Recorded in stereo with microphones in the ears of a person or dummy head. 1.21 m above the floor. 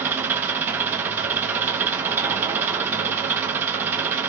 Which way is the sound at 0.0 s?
5° right (ahead or behind).